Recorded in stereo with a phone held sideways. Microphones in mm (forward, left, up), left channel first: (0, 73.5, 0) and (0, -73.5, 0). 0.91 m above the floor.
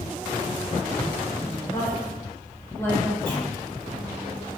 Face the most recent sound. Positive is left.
turn(degrees=5)  # may be behind; listen again after turning